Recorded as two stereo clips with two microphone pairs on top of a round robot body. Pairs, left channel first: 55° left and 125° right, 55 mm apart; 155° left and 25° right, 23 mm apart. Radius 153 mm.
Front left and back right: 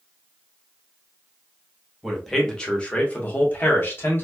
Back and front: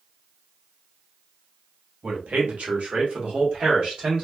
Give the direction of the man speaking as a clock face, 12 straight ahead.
1 o'clock.